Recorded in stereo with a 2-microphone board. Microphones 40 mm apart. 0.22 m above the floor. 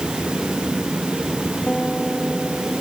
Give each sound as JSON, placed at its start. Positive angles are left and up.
{"t": 1.7, "sound": "a guitar", "side_deg": 20}